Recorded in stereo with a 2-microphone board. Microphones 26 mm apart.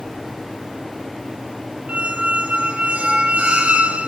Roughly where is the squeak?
Right.